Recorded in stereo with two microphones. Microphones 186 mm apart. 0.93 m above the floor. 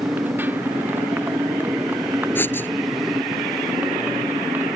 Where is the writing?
10° left (ahead or behind).